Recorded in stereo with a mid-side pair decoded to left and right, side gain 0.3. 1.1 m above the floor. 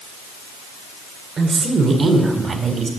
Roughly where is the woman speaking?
Ahead right.